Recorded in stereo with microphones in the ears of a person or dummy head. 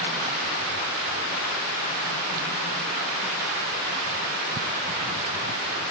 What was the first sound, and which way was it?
Only background noise.